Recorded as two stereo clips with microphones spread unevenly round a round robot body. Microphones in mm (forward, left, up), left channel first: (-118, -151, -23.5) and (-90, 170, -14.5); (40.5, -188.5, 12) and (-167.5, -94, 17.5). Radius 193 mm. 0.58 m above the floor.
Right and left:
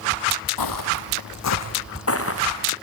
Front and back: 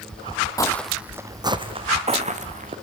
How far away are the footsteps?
About 1.2 m.